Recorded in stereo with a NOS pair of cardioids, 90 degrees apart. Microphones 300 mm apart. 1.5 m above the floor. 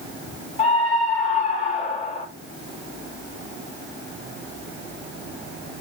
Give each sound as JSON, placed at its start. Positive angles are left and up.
{"t": 0.6, "sound": "a scream", "azimuth_deg": 20, "distance_m": 5.5}